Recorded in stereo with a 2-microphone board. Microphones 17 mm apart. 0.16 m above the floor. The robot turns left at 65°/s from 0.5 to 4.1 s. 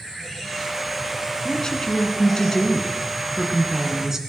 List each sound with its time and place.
1.4 s a woman speaking: 130° left, 2 m; by 4.2 s 40° right, 2 m